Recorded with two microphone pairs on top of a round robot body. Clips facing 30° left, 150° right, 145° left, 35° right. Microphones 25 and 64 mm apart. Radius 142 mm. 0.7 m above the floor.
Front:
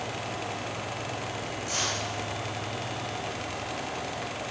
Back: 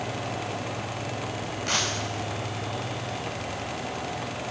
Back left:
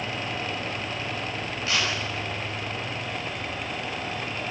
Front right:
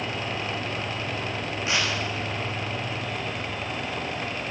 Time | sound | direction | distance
1.7 | tearing paper | 105° right | 6.5 m